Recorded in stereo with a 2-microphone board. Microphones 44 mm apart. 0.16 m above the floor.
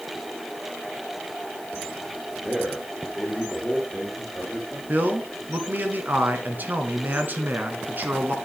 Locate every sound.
2.4 s a man speaking: 5° right (ahead or behind), 3.5 m
4.9 s a man speaking: 45° right (ahead or behind), 1.4 m